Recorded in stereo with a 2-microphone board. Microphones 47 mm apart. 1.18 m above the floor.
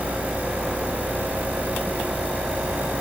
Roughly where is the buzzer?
I don't hear a buzzer.